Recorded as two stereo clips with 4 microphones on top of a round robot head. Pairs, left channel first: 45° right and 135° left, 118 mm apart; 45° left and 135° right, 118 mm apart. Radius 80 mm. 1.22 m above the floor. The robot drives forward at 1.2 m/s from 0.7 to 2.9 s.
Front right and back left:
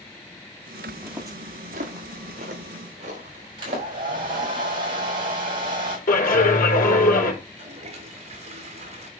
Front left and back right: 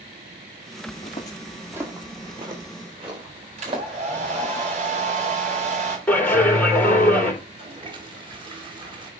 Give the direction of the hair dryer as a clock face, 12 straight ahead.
6 o'clock.